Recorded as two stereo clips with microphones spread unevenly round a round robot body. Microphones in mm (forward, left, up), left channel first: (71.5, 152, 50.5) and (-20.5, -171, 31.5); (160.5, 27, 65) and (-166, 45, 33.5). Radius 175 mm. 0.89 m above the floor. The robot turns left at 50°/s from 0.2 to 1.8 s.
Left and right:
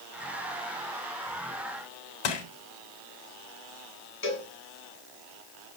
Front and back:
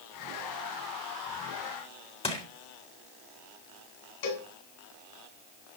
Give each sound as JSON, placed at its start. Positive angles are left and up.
{"t": 2.2, "sound": "crushing", "azimuth_deg": 70, "distance_m": 4.5}
{"t": 4.2, "sound": "a cowbell", "azimuth_deg": 15, "distance_m": 7.0}